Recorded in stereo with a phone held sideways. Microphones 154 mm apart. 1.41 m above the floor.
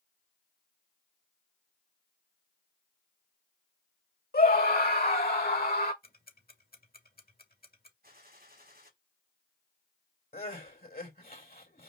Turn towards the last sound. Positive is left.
turn(degrees=80)